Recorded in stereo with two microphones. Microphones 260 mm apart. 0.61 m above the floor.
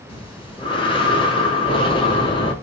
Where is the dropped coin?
No dropped coin in this recording.